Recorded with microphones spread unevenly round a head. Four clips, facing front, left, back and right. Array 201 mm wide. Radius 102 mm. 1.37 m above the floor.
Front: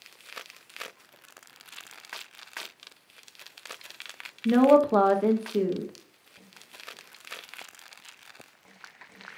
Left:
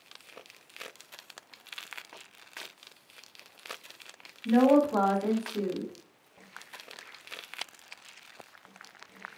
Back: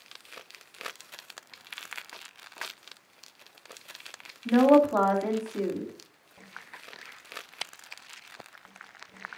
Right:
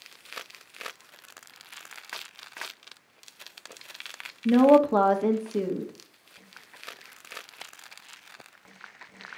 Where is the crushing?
No crushing in this recording.